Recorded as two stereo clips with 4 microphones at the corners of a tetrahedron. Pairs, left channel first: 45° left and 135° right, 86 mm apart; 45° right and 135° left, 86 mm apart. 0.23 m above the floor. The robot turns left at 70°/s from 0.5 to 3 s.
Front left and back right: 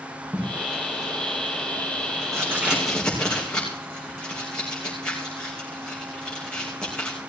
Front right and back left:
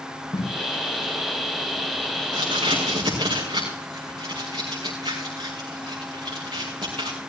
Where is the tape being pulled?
60° right, 4.5 m; by 7.1 s 125° left, 4.5 m.